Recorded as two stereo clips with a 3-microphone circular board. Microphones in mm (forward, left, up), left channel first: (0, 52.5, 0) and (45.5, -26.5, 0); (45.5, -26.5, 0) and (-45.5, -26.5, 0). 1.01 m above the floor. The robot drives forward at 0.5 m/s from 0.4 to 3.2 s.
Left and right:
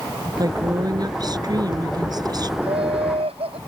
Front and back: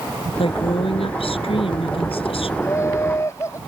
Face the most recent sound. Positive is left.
turn(degrees=-60)